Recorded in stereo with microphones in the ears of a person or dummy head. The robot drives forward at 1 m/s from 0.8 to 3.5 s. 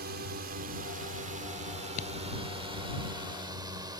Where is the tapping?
45° left (ahead or behind).